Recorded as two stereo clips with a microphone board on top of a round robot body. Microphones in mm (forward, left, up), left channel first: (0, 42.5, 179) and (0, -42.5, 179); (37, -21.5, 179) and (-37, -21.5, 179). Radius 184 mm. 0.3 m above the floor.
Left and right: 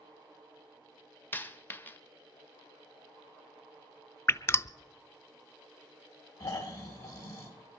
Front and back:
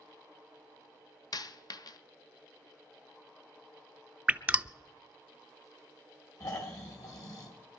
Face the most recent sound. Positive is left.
turn(degrees=40)